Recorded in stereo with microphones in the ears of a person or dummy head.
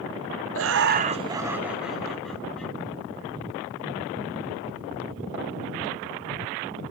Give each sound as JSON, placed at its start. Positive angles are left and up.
{"t": 0.6, "sound": "laughter", "side_deg": -70, "distance_m": 0.7}